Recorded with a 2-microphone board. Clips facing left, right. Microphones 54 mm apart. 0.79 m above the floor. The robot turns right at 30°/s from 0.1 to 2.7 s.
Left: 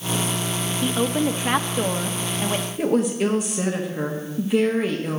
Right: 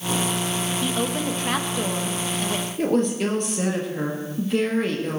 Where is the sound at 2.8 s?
5° left (ahead or behind), 1.3 m.